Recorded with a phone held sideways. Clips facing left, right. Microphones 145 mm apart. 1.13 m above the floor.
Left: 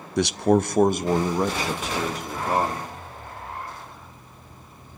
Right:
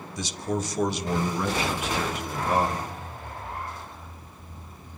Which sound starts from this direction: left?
A man speaking, at 0.2 s.